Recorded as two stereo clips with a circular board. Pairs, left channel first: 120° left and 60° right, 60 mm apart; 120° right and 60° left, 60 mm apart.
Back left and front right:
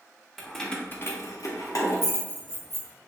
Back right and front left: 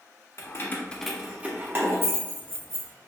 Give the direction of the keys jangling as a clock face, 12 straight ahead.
5 o'clock.